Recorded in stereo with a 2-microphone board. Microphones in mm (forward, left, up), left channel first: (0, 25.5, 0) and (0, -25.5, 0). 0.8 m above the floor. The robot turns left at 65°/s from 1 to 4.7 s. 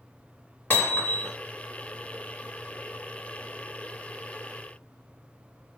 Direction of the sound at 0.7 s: 40° left (ahead or behind).